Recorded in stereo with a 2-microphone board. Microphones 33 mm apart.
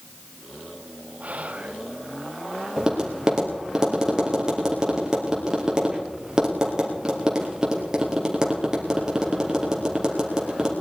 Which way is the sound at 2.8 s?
20° right (ahead or behind).